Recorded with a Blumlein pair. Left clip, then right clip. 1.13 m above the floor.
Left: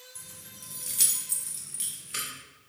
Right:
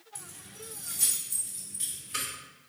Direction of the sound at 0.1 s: 5° right.